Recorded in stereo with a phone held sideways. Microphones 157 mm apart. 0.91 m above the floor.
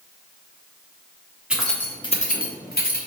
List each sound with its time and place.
1.5 s keys jangling: 5° right (ahead or behind), 1.3 m; by 3.0 s 85° left, 1.5 m